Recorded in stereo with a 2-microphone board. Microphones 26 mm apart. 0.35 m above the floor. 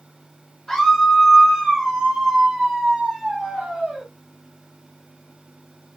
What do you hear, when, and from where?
0.7 s a scream: 5° left (ahead or behind), 1.2 m; by 4.1 s 50° right (ahead or behind), 3 m